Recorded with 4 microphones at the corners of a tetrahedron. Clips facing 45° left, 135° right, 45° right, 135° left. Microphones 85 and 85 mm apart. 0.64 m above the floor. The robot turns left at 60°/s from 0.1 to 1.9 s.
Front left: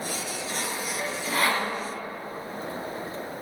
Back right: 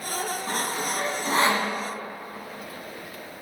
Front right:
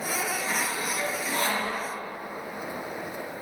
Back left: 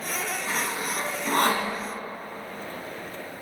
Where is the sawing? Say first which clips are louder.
Back right 2 dB, even; 140° right, 1.4 m; by 1.7 s 145° left, 1.4 m.